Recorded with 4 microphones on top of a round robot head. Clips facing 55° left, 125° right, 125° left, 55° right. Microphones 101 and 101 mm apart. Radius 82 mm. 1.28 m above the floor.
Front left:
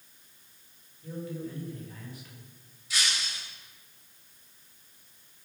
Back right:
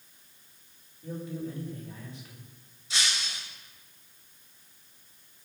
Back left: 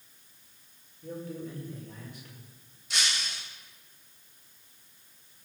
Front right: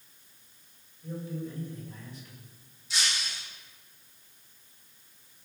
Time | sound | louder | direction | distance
1.0 | a man speaking | back right 1 dB, front right 1 dB | 165° left | 6.5 m
2.9 | breaking glass | even, even | 165° left | 4.5 m